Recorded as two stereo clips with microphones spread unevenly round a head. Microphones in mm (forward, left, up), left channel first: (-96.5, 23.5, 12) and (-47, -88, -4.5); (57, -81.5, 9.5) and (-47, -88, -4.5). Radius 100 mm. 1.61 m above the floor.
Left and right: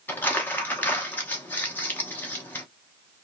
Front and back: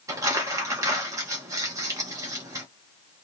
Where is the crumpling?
145° left, 0.8 m.